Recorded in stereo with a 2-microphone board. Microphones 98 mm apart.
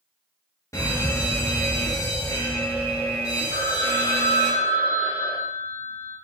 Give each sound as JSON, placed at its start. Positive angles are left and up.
{"t": 0.7, "sound": "an alarm", "side_deg": 30, "distance_m": 1.4}
{"t": 3.5, "sound": "a phone ringing", "side_deg": -25, "distance_m": 1.3}